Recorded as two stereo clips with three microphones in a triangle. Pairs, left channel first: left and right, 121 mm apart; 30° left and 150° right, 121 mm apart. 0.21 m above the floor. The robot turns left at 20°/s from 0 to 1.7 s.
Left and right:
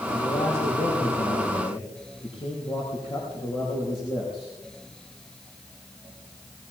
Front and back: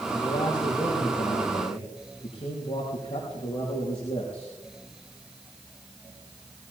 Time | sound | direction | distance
0.1 | a man speaking | 85° left | 5 m